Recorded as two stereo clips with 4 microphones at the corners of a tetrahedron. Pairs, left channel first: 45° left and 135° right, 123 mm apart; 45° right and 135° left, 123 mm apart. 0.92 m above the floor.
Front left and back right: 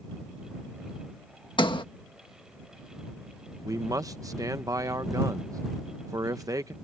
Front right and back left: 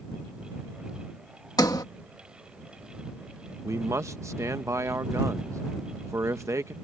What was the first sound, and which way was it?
A sliding door, 5° left.